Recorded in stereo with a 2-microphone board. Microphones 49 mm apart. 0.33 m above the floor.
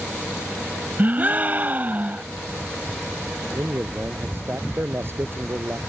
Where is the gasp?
35° right (ahead or behind).